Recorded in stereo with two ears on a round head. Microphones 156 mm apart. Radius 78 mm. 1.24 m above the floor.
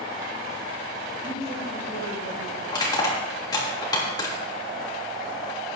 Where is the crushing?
25° left (ahead or behind), 3 m.